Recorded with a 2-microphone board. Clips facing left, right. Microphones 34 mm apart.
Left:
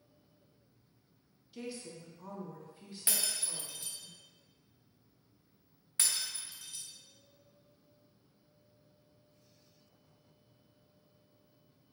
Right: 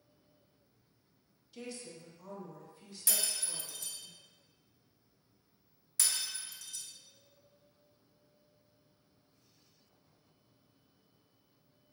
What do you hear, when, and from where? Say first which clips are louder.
1.5 s a woman speaking: left 2 dB; 10° left (ahead or behind), 0.6 m; by 4.1 s 30° left (ahead or behind), 1.4 m
3.1 s breaking glass: even; 35° left (ahead or behind), 0.5 m